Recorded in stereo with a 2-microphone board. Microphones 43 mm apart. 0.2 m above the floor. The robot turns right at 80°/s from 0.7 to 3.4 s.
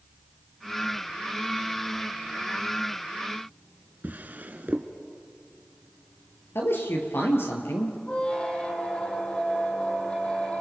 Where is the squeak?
25° left (ahead or behind), 2.5 m.